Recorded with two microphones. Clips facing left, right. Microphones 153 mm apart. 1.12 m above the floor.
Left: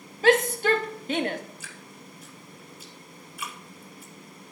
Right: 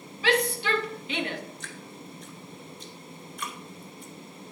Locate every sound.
0.2 s a shout: 45° left (ahead or behind), 1.6 m
1.6 s dripping: 5° left (ahead or behind), 2.5 m